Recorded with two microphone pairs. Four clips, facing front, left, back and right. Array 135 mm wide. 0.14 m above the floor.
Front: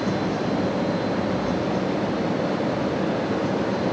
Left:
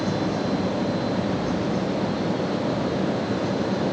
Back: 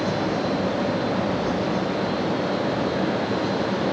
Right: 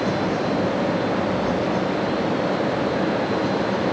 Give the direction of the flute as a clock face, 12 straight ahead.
I don't hear a flute.